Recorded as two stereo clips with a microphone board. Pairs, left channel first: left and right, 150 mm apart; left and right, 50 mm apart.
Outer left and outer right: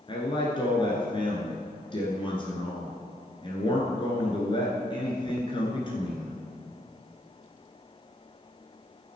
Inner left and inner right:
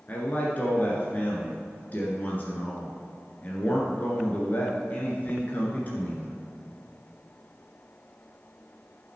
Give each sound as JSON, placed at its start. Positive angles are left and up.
{"t": 0.1, "sound": "a man speaking", "side_deg": 35, "distance_m": 1.5}